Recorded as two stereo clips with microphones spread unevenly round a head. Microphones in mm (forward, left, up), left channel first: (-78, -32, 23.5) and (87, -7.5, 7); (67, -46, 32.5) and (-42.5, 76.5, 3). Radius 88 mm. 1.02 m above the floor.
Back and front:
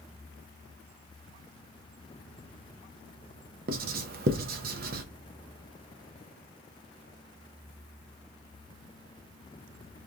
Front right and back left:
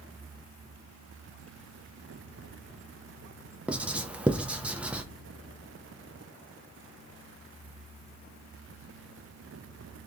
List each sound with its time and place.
3.7 s writing: 50° left, 0.6 m